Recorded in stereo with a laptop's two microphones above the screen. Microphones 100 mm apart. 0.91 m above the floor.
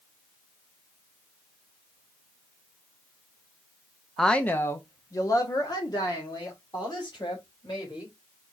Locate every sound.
4.2 s a woman speaking: centre (ahead or behind), 0.6 m; by 8.1 s 50° left (ahead or behind), 3.5 m